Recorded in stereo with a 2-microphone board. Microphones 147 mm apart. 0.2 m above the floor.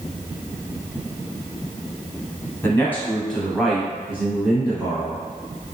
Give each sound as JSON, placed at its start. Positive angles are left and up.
{"t": 2.6, "sound": "a man speaking", "side_deg": 15, "distance_m": 1.2}